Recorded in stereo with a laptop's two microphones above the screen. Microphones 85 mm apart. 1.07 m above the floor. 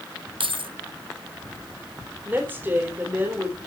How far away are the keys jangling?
About 1.0 m.